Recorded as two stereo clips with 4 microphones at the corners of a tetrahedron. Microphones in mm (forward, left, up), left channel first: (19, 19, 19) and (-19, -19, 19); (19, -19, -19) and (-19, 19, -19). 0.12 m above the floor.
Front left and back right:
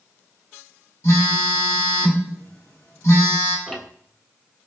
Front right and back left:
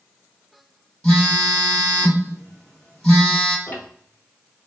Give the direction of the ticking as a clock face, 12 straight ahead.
1 o'clock.